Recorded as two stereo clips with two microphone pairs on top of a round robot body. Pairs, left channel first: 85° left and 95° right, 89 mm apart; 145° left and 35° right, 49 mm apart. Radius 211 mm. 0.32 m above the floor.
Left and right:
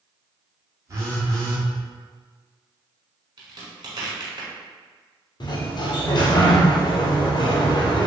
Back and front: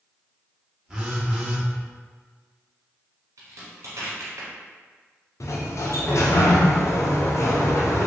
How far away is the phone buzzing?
About 1.4 m.